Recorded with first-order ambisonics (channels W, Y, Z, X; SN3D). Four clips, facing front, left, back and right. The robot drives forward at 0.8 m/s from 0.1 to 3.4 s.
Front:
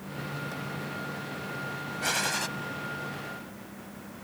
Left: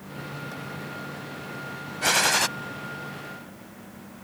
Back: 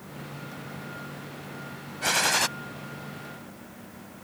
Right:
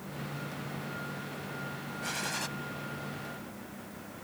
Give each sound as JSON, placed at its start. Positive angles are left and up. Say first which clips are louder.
{"t": 2.0, "sound": "a gunshot", "louder": "left 14 dB, back 6 dB", "azimuth_deg": 100}